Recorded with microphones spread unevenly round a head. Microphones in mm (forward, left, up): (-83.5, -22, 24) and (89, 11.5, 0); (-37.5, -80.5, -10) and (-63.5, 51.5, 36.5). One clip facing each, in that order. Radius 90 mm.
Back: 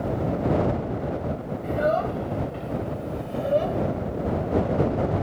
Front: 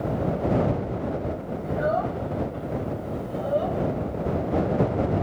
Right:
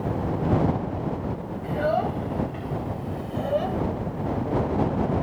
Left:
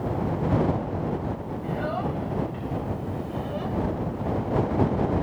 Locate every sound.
1.6 s a child speaking: 115° right; by 3.8 s 110° right